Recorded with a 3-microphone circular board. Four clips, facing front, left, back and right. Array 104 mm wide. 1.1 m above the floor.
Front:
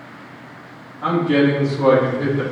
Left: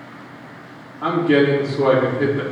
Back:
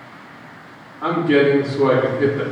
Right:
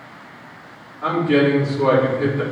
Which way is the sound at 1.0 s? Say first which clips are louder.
Left 1 dB, back 1 dB; 125° left.